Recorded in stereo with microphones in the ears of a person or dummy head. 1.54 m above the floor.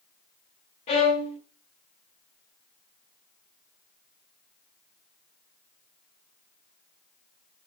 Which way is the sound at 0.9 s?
30° left (ahead or behind).